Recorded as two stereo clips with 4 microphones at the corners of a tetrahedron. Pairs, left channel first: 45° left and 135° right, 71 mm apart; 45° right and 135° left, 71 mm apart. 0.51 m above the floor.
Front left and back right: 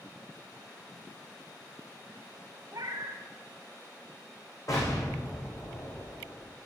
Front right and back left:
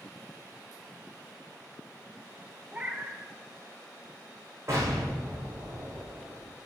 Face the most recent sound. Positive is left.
turn(degrees=85)